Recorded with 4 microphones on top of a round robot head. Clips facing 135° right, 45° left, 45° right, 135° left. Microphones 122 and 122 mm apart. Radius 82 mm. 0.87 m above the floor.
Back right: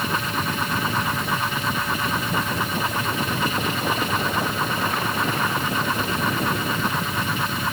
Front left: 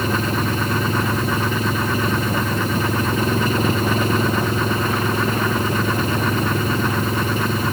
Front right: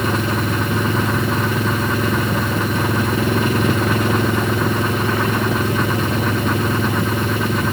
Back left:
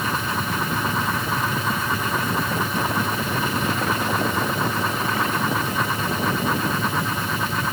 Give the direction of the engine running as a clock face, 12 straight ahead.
12 o'clock.